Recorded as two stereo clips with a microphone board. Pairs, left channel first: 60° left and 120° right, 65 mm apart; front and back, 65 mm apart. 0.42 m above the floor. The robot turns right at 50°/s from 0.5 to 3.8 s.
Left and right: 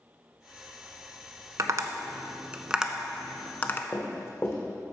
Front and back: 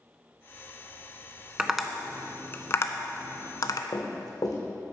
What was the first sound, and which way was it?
Tapping, 100° right.